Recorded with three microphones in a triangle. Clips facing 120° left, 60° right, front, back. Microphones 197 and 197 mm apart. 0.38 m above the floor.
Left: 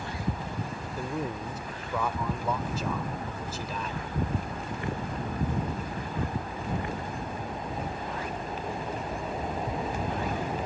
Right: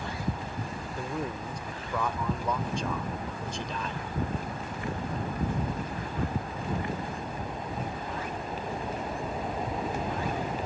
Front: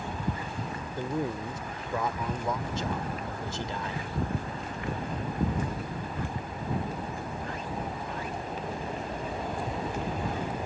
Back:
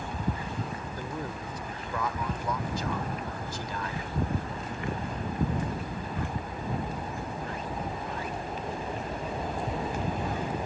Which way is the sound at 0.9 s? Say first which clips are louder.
Left 1 dB, front 9 dB; 40° left.